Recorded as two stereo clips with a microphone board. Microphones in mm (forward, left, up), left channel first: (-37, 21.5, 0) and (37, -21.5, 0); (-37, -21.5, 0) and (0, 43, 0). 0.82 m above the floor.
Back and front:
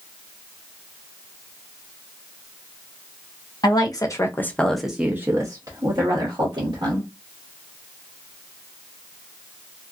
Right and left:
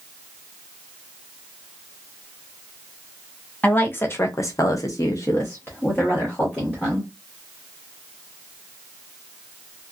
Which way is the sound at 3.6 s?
175° left.